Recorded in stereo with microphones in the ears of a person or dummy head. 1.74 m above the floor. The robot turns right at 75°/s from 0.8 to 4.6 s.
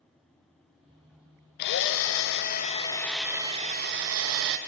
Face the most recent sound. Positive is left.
turn(degrees=-75)